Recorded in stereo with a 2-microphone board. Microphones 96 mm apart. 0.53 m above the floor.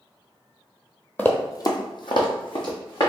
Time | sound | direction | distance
1.2 | running footsteps | 20° left (ahead or behind) | 0.7 m